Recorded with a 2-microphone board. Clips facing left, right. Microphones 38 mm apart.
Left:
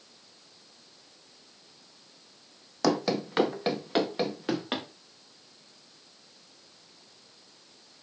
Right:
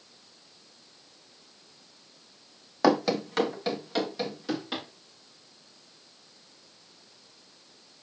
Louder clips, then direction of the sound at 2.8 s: Right 3 dB; 25° right (ahead or behind).